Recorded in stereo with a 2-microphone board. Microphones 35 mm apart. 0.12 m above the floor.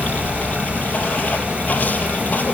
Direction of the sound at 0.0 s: 45° left (ahead or behind).